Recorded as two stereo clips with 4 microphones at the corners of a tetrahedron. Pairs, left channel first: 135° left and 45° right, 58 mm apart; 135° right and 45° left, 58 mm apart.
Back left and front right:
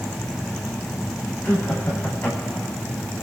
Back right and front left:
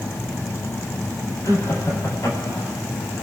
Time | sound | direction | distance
1.4 | laughter | 170° right | 10 m